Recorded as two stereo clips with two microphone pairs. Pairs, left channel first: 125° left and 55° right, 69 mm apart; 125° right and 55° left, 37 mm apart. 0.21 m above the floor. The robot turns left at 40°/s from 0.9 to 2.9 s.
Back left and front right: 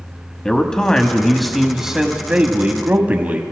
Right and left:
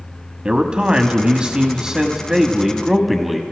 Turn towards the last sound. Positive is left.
turn(degrees=-25)